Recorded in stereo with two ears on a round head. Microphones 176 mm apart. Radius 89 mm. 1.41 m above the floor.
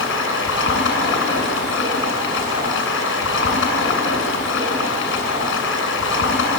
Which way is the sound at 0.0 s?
70° left (ahead or behind).